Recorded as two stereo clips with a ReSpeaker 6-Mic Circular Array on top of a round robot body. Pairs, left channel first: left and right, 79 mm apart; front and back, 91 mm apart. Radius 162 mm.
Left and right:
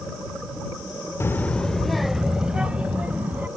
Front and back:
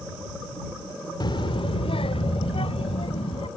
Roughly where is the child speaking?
Ahead left.